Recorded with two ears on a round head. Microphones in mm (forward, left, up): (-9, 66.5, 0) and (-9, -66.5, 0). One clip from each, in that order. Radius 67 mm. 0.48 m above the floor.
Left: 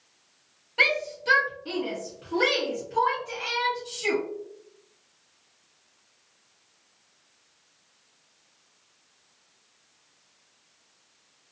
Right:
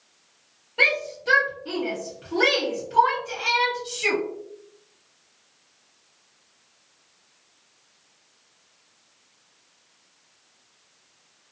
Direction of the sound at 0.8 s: 45° left (ahead or behind).